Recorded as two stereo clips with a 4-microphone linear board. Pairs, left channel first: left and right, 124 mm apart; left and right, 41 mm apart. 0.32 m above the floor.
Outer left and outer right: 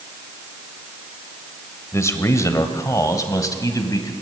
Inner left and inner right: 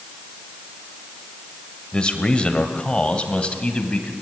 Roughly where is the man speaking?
Left.